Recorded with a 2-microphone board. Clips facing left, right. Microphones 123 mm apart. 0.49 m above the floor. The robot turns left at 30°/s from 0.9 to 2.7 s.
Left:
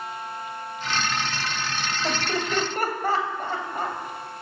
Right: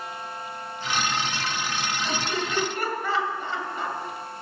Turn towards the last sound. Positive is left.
turn(degrees=45)  # may be behind; listen again after turning